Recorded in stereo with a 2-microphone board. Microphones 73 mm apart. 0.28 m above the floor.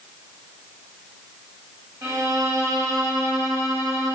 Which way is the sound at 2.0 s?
50° right (ahead or behind).